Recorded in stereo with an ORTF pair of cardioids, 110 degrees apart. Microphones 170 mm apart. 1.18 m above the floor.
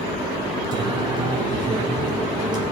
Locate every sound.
0.7 s singing: 25° right, 3.5 m